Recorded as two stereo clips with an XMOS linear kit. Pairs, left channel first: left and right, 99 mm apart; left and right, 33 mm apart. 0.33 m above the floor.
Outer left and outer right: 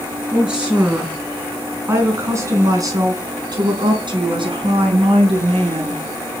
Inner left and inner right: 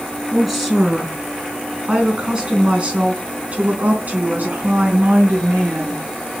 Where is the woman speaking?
5° right (ahead or behind), 4.5 m; by 6.0 s 70° right (ahead or behind), 5 m.